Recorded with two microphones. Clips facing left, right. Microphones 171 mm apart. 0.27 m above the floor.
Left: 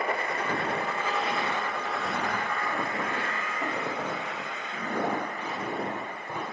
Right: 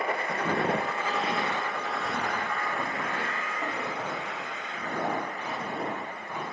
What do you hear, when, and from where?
0.3 s footsteps: 75° right (ahead or behind), 0.7 m; by 6.4 s 40° left (ahead or behind), 3 m